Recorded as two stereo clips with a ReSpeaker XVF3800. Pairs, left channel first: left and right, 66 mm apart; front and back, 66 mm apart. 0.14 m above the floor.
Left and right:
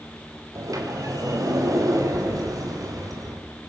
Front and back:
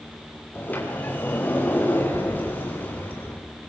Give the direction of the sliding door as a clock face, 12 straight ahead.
2 o'clock.